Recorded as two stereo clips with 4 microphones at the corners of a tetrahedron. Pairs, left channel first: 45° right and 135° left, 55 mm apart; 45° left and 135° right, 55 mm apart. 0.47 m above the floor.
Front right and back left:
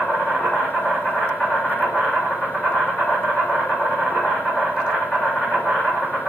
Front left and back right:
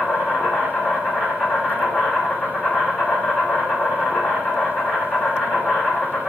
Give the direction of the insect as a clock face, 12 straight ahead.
2 o'clock.